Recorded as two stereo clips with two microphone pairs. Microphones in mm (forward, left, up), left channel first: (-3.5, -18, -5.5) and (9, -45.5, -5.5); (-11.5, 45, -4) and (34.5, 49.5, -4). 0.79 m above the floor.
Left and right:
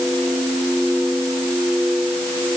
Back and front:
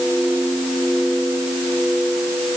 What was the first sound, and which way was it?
Only background noise.